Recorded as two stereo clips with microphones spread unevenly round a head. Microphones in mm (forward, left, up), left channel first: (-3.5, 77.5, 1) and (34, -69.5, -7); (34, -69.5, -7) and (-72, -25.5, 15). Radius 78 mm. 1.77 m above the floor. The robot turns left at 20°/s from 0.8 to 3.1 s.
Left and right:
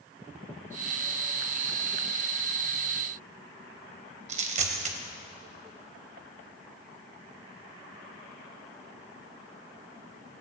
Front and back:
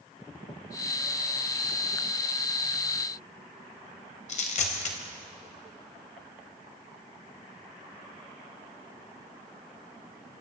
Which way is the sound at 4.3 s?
40° right.